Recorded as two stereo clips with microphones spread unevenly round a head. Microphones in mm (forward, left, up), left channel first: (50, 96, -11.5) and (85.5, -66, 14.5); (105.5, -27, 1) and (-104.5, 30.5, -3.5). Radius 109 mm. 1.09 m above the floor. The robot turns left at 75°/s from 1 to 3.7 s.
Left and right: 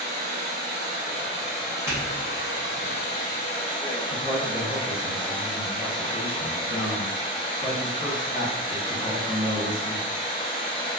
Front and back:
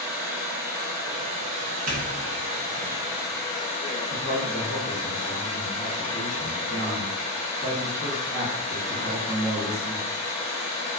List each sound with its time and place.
0.0 s running water: 115° right, 1.2 m; by 11.0 s 40° left, 1.2 m
1.9 s a doorbell: 155° right, 0.6 m; by 2.9 s 125° left, 0.6 m
4.1 s a man speaking: 100° left, 1.5 m